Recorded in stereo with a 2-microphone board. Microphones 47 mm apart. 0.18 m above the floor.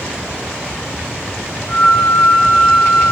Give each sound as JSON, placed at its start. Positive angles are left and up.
{"t": 1.7, "sound": "a flute", "side_deg": 75, "distance_m": 2.0}